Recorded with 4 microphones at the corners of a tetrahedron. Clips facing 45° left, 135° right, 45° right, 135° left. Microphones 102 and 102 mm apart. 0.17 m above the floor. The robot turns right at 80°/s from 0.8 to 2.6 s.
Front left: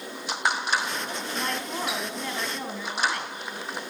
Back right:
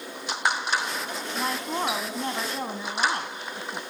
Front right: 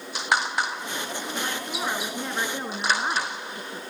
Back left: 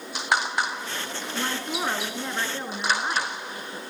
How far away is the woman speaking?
About 1.8 m.